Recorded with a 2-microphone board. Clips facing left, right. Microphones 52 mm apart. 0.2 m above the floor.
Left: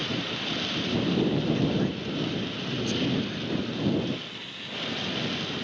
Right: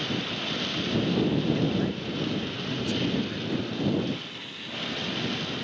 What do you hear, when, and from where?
1.6 s a man speaking: centre (ahead or behind)